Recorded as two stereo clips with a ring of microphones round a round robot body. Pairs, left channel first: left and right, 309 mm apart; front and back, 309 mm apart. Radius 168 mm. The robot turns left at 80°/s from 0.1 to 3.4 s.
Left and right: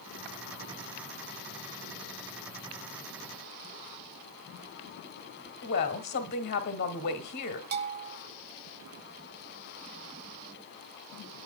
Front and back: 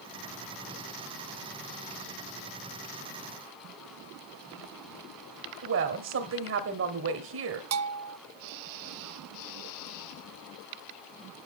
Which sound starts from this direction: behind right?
A bell, at 7.7 s.